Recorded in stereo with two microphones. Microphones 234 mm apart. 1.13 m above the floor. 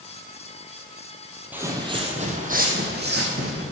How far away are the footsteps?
About 1.9 m.